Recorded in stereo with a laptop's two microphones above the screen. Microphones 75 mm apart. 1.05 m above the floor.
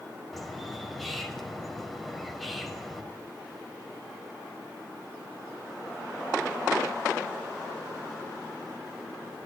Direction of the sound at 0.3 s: 5° left (ahead or behind).